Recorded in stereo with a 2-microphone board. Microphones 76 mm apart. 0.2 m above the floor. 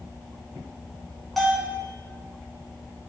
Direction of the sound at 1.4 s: 5° left (ahead or behind).